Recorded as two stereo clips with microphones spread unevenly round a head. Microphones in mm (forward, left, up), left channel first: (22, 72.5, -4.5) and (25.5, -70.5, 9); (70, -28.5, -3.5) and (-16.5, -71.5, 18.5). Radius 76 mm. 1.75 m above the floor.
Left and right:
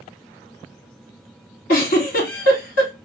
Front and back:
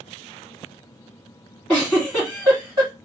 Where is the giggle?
115° left, 1.9 m.